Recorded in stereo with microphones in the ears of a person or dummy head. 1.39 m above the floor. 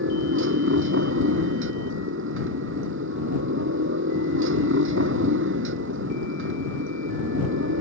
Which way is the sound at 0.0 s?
70° right (ahead or behind).